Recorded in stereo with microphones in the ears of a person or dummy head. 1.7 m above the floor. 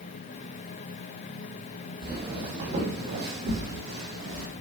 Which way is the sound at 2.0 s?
30° right (ahead or behind).